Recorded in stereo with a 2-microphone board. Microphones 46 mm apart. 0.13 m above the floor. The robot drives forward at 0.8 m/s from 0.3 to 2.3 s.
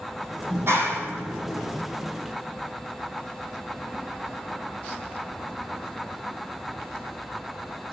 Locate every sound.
0.5 s a clap: 60° right (ahead or behind), 4.5 m; by 1.8 s 50° right (ahead or behind), 5 m